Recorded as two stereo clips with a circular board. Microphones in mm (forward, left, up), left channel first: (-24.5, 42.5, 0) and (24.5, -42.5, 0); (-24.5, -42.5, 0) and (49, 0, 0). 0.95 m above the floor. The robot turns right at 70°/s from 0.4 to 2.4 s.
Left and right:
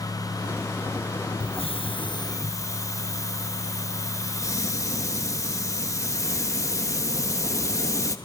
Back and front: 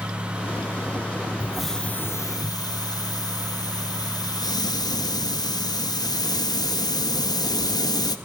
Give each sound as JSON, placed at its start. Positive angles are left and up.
{"t": 1.4, "sound": "a hiss", "azimuth_deg": 105, "distance_m": 0.9}